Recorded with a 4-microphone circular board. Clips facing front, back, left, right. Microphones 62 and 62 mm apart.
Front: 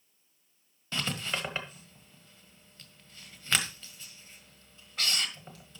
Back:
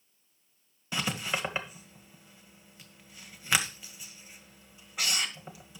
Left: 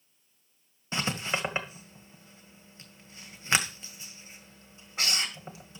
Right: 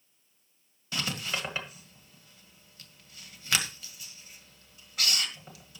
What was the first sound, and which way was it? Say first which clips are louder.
Writing: back 2 dB, left 3 dB; 115° left.